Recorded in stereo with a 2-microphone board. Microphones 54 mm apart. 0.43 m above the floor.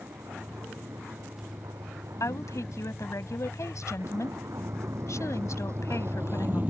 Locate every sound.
0.0 s a vehicle: 80° right; by 6.7 s 30° right (ahead or behind)
2.2 s a woman speaking: 70° left (ahead or behind)